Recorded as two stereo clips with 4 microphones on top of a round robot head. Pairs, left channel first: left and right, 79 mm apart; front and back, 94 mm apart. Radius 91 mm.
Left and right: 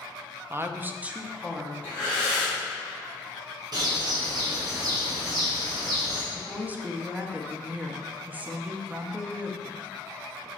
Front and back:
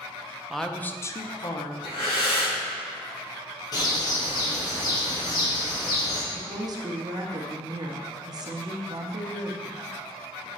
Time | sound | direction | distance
0.5 | a woman speaking | 90° right | 0.5 m
1.8 | breathing | 20° left | 3 m
3.7 | a bird | 50° right | 1.5 m
6.3 | a woman speaking | 155° right | 1.0 m